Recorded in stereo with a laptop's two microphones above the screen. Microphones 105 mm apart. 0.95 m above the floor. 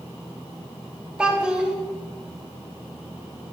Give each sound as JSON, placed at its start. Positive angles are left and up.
{"t": 1.2, "sound": "a child speaking", "side_deg": -10, "distance_m": 0.7}